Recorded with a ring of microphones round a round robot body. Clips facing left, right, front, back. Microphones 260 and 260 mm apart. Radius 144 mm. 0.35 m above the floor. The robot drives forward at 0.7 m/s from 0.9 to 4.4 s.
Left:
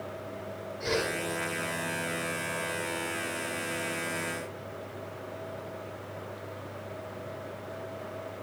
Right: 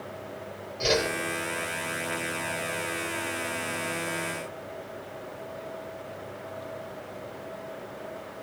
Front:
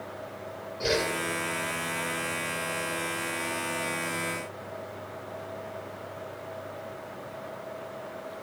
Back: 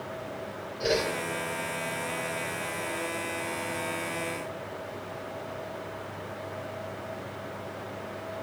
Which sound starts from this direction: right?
A whoosh, at 0.8 s.